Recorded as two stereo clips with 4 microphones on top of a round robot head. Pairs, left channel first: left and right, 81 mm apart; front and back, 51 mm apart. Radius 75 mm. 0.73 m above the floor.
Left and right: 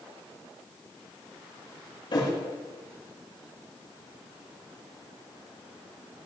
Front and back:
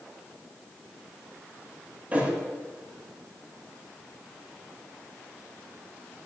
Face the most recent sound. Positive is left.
turn(degrees=120)